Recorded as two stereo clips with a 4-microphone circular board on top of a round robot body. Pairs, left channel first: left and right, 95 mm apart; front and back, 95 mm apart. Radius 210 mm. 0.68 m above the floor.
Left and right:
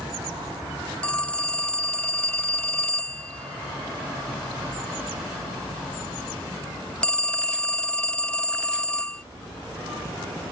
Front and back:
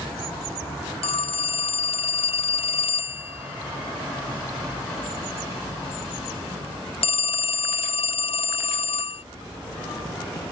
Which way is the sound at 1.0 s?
10° left.